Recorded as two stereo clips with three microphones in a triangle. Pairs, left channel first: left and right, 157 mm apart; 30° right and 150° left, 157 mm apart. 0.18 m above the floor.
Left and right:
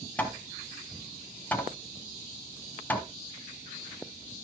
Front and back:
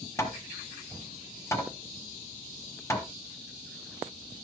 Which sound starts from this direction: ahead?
Hammering, at 0.2 s.